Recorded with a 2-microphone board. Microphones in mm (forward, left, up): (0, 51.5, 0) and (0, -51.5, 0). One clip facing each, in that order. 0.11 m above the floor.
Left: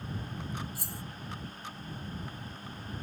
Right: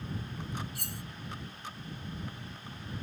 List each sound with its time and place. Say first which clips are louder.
0.8 s cutlery clinking: left 1 dB; 65° right (ahead or behind)